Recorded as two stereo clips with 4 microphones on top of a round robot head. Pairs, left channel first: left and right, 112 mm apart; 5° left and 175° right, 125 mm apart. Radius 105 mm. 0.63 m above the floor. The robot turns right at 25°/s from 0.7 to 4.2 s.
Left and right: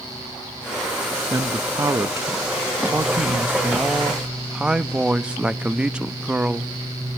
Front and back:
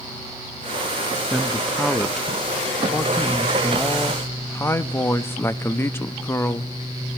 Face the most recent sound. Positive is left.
turn(degrees=-25)